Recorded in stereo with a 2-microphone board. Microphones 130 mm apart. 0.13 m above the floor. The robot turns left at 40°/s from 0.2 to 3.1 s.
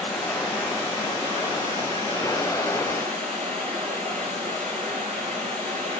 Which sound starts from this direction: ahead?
Running water, at 0.0 s.